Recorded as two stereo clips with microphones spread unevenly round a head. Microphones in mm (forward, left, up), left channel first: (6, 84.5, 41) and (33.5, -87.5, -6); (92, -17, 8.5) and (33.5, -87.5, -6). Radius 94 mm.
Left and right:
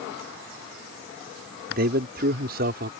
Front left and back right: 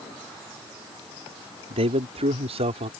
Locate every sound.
1.7 s a man speaking: 125° right